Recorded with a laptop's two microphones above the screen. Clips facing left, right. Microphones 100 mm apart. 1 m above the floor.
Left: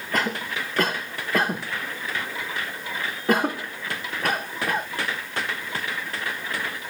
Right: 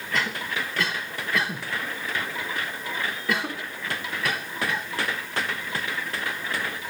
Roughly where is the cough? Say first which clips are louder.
Left 2 dB; left.